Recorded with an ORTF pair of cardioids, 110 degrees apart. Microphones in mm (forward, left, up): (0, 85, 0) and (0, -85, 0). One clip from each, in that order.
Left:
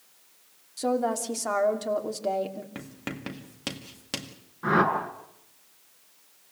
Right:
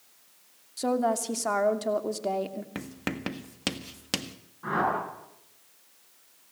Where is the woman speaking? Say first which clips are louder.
Even; 10° right, 2.5 m.